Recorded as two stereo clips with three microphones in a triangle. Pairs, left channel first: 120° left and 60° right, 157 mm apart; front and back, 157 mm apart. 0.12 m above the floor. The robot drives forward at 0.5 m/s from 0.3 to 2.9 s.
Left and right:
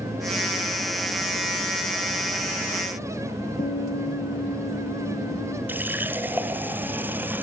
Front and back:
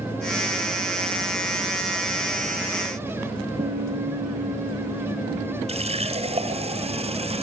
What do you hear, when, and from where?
3.6 s a guitar: 155° left, 5 m
5.7 s a running tap: 135° right, 1.5 m